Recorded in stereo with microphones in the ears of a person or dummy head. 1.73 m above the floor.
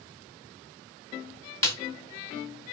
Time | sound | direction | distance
1.6 | a snare drum | 15° left (ahead or behind) | 0.7 m